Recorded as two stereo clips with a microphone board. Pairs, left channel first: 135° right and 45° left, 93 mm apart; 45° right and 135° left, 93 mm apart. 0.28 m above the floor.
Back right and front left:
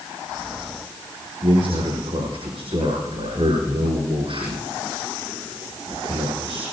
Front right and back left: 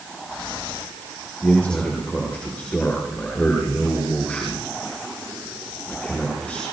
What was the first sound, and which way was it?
A man speaking, 35° left.